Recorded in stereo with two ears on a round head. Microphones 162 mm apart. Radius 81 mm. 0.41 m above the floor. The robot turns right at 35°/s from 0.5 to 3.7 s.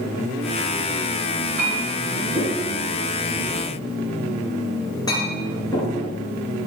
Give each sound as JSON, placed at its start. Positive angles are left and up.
{"t": 1.6, "sound": "a clink", "side_deg": -55, "distance_m": 4.0}